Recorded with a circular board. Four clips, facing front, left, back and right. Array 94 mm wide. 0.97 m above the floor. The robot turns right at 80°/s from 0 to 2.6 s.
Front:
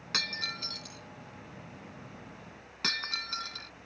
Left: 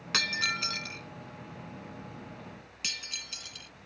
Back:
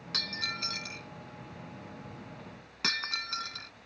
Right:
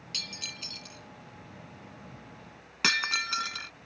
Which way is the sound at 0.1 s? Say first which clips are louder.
Left 15 dB, front 1 dB; 70° left.